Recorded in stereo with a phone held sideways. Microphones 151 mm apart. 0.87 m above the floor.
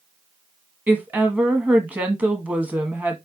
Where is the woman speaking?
10° right (ahead or behind), 1.2 m.